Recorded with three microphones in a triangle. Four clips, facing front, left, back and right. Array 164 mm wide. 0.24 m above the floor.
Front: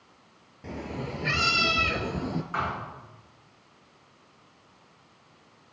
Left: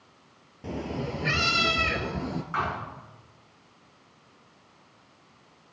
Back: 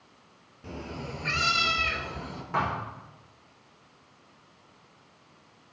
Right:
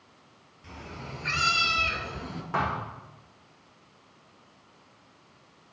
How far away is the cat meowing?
About 1.8 m.